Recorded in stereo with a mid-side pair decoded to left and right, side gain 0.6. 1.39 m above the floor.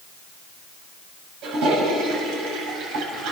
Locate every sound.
1.4 s a toilet flushing: 65° right, 8 m